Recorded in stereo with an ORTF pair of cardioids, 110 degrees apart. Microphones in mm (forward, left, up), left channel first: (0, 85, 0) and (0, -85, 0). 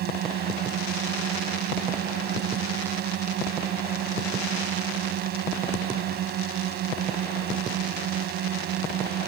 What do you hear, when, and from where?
0.0 s a drone: 70° right